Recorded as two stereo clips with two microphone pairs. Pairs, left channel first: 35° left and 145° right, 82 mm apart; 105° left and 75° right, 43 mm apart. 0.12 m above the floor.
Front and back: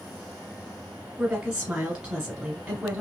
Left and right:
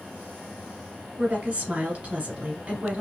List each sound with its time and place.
1.2 s a woman speaking: 80° right, 1.4 m